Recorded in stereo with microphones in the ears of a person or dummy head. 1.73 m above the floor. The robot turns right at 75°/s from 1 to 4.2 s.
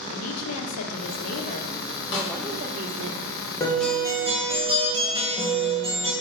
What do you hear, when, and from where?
0.1 s a woman speaking: 90° left, 0.9 m; by 3.1 s 115° right, 0.9 m
2.1 s a snare drum: 75° left (ahead or behind), 1.8 m; by 2.3 s 70° left (ahead or behind), 1.8 m
3.6 s a guitar: 160° left, 1.5 m; by 6.1 s 155° right, 1.5 m